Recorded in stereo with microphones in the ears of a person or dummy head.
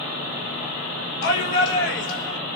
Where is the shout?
65° left (ahead or behind), 6 m.